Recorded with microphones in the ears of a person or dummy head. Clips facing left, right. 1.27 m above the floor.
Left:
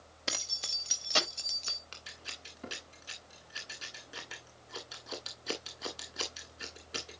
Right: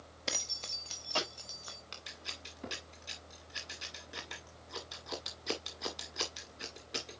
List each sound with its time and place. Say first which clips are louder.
0.3 s keys jangling: even; 5° right (ahead or behind), 1.2 m; by 1.8 s 35° left (ahead or behind), 2 m
1.9 s scissors: right 2 dB; 5° right (ahead or behind), 1.7 m